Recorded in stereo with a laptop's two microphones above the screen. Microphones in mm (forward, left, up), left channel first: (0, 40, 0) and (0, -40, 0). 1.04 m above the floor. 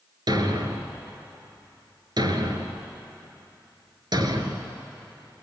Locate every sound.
0.3 s a thud: 60° right (ahead or behind), 1.8 m